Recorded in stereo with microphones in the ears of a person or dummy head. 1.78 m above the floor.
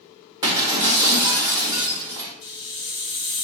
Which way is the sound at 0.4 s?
20° right (ahead or behind).